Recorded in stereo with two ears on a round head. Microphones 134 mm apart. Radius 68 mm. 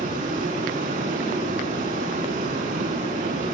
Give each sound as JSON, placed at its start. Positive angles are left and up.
{"t": 0.0, "sound": "running water", "side_deg": -55, "distance_m": 7.5}